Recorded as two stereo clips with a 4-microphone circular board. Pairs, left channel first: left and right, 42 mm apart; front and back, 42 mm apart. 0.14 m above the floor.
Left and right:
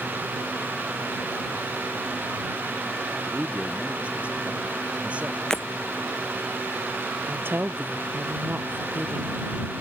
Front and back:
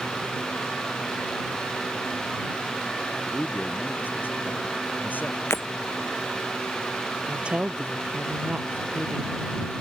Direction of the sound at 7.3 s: 120° right.